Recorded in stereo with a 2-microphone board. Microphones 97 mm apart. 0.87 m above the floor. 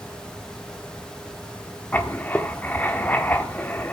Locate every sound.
1.9 s writing: 15° left (ahead or behind), 1.3 m